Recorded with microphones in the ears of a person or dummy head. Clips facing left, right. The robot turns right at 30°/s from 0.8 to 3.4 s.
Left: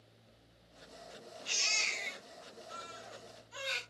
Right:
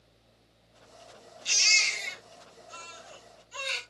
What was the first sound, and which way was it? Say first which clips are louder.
A baby crying: right 6 dB; 80° right.